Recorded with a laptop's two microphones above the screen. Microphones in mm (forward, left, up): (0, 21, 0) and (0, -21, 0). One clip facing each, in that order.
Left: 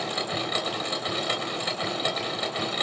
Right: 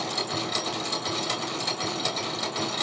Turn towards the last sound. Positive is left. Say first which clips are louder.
# left 1 dB
turn(degrees=25)  # may be behind; listen again after turning